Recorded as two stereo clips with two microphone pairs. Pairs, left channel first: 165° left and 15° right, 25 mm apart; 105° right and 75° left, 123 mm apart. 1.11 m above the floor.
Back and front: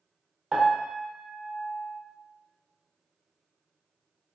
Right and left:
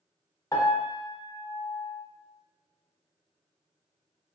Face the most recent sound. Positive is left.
turn(degrees=-45)